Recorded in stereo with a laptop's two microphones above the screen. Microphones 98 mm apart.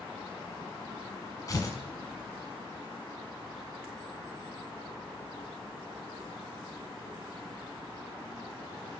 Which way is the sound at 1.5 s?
35° left (ahead or behind).